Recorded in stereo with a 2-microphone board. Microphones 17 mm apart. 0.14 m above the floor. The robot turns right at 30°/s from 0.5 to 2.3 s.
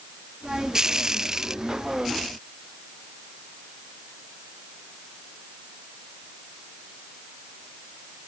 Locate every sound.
Only background noise.